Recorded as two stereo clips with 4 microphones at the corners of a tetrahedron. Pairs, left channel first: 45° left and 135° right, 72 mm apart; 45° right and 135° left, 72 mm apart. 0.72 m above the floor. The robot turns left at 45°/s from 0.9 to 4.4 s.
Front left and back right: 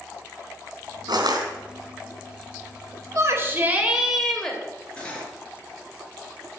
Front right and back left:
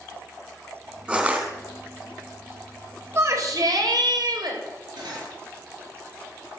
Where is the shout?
175° right, 3.5 m; by 4.6 s 125° left, 3.5 m.